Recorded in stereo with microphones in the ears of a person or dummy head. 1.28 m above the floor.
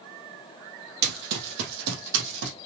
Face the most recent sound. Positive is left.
turn(degrees=-70)  # may be behind; listen again after turning